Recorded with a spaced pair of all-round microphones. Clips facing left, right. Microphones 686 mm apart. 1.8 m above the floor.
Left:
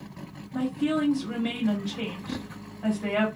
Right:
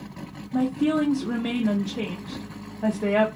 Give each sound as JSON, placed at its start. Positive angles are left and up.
{"t": 0.5, "sound": "a woman speaking", "side_deg": -70, "distance_m": 0.7}